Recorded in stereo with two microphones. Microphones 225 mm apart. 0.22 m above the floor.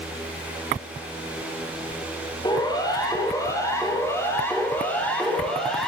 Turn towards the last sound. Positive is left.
turn(degrees=0)  # may be behind; listen again after turning